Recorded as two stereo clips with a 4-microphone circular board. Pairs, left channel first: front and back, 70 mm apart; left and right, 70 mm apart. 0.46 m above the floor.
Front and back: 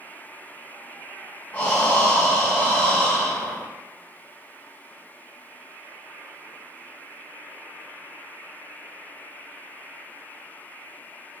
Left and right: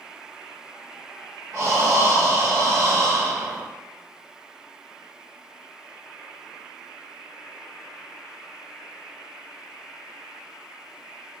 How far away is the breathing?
About 0.9 m.